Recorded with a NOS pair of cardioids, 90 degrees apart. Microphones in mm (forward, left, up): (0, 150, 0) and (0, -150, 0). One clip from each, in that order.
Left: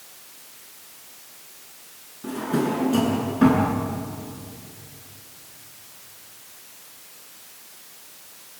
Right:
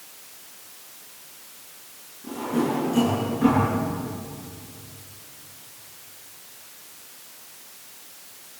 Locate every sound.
2.2 s a drawer: 65° left, 8.5 m